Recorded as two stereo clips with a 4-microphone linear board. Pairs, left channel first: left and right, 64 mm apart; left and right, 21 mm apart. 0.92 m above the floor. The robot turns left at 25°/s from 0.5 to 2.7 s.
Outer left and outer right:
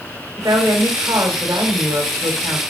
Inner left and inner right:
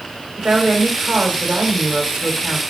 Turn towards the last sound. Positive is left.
turn(degrees=-120)